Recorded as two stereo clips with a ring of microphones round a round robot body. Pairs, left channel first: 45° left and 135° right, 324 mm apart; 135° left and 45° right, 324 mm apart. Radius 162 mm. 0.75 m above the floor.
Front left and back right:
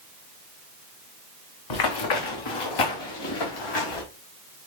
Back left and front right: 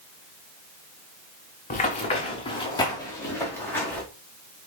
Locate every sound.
1.7 s running footsteps: 70° left, 3 m; by 4.0 s 50° left, 5 m